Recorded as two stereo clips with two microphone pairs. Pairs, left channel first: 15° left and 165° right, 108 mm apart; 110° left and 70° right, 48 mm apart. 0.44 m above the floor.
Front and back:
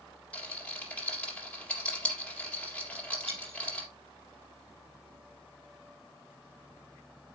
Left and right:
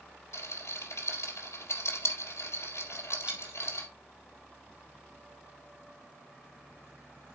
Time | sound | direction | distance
0.3 | a rattle | 90° left | 3.5 m
3.3 | a dropped coin | 135° right | 3.5 m